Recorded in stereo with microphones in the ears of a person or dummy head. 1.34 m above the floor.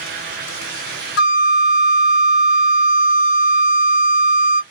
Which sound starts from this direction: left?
A flute, at 1.2 s.